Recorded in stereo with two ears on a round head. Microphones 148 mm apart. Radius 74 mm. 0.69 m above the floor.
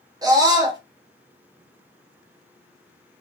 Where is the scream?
20° right (ahead or behind), 0.7 m.